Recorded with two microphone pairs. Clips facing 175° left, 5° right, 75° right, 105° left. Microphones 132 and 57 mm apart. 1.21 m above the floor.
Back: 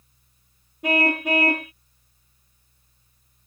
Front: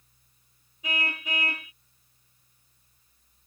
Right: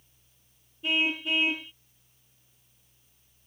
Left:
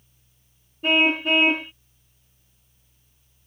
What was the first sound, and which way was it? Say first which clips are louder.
A car horn: back 13 dB, left 8 dB; 140° left.